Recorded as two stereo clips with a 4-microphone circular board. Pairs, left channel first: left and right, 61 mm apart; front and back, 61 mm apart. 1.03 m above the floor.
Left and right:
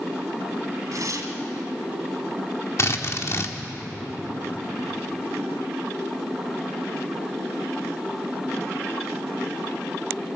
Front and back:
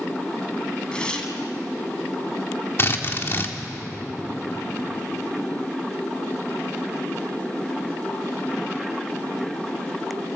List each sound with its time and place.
0.9 s tearing paper: 75° right, 2.5 m
2.8 s a drill: 50° left, 1.6 m